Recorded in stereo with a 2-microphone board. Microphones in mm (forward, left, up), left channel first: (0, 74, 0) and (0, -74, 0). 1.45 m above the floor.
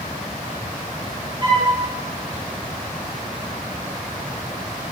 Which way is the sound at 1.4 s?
35° right (ahead or behind).